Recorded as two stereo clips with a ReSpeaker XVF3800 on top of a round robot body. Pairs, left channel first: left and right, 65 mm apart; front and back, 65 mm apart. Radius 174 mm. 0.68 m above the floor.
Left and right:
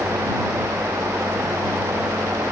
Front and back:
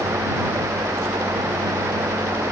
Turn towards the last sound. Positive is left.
No sound to turn to.